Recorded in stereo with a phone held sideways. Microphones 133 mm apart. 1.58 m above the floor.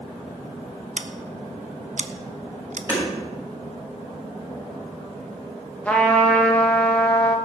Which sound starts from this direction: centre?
A trumpet, at 5.8 s.